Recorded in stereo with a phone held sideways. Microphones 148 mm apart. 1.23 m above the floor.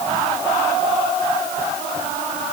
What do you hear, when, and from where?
Only background noise.